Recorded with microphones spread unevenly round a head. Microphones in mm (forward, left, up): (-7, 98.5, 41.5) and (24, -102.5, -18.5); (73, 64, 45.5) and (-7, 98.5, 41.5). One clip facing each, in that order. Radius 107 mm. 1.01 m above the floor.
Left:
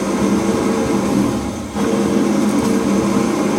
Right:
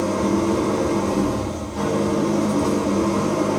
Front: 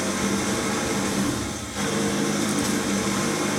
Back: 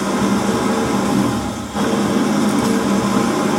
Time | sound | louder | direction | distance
0.0 | an engine running | left 4 dB, back 8 dB | 120° left | 1.3 m